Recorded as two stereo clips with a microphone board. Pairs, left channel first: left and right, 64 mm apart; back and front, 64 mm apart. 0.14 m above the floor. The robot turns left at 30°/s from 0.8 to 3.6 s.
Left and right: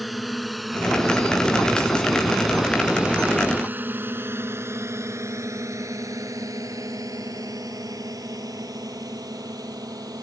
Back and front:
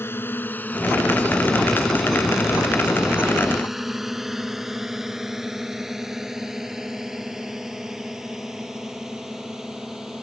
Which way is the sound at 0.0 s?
Straight behind.